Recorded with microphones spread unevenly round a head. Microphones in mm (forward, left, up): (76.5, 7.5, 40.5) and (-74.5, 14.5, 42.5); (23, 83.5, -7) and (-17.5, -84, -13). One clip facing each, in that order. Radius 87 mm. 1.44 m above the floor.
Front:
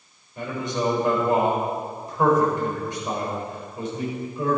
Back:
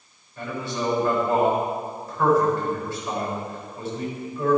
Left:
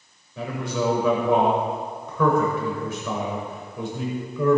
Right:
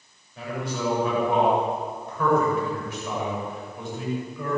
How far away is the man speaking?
About 7 m.